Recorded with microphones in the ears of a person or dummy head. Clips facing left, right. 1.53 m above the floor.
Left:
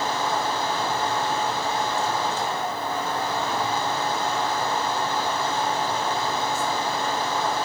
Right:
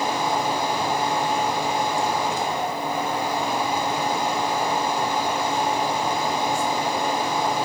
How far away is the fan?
About 1.2 m.